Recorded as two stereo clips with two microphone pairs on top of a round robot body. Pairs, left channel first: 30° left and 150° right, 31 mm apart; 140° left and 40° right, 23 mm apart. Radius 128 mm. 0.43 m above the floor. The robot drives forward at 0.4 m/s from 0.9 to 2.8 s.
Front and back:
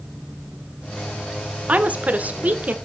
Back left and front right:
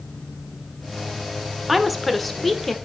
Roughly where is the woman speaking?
Behind right.